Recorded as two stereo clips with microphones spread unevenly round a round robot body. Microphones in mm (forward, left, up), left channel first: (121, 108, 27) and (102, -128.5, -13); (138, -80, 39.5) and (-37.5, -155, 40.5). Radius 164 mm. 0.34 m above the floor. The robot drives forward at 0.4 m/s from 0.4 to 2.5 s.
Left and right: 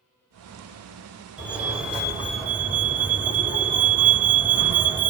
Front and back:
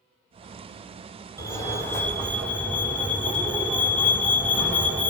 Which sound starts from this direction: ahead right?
A fire alarm, at 1.4 s.